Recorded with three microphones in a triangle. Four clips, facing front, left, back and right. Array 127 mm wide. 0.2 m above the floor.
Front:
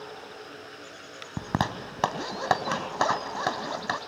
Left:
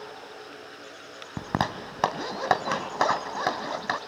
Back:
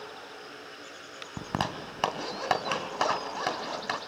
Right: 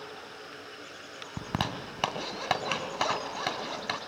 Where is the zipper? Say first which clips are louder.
Left 5 dB, front 3 dB; 70° left, 1.8 m.